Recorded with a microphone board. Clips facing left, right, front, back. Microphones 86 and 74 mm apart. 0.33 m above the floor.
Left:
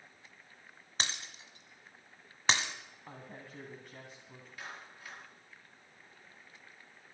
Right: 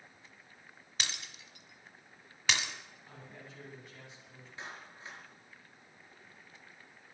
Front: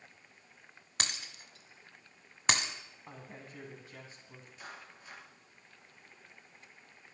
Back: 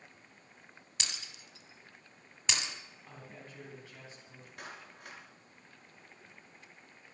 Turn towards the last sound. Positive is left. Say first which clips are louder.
# right 1 dB, back 2 dB
turn(degrees=-155)